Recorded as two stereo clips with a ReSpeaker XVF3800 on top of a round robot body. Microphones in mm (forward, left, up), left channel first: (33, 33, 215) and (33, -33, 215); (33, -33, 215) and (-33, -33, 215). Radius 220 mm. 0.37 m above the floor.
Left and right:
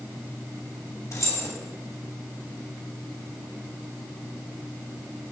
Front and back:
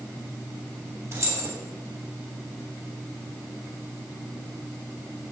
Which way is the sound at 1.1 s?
130° left.